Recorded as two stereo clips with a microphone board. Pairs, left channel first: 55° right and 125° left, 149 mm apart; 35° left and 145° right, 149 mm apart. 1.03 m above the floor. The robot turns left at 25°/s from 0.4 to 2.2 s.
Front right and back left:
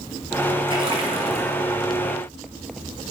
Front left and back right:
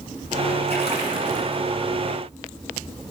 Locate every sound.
0.7 s a splash: 175° left, 1.1 m; by 1.7 s 150° left, 1.1 m